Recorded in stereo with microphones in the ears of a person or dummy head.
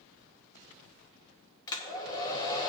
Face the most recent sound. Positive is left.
turn(degrees=25)  # may be behind; listen again after turning